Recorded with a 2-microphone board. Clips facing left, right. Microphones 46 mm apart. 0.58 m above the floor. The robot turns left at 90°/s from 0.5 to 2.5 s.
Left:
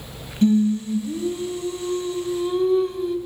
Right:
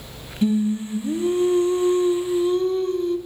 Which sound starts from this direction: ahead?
Singing, at 0.4 s.